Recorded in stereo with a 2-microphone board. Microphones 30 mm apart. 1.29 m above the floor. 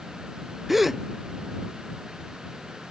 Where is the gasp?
5° right (ahead or behind).